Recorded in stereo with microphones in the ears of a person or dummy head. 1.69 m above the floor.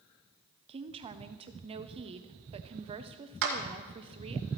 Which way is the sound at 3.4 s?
65° right (ahead or behind).